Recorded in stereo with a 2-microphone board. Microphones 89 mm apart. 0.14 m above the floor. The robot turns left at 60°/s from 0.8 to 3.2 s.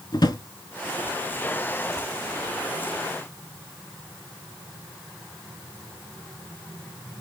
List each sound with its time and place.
0.1 s a drawer: 50° left (ahead or behind), 0.5 m